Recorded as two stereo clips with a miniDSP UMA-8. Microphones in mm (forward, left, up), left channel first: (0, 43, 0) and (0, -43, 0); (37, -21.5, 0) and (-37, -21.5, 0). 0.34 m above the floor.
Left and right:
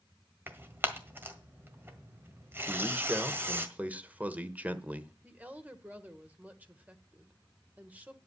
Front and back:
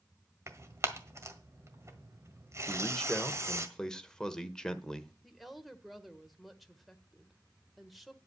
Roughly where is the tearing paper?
Behind right.